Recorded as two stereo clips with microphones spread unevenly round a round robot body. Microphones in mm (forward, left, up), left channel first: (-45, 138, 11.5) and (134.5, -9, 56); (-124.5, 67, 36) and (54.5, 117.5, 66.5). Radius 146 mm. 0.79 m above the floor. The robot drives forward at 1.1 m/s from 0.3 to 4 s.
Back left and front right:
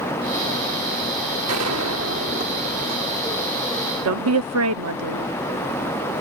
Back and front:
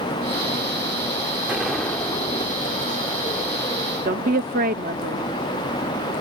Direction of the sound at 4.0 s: 40° right.